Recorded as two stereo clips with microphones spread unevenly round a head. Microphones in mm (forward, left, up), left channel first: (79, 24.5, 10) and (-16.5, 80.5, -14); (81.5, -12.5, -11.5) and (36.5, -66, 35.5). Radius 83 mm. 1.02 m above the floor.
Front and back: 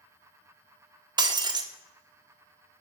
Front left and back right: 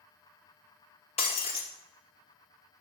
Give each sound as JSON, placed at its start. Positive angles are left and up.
{"t": 1.2, "sound": "breaking glass", "azimuth_deg": 95, "distance_m": 0.7}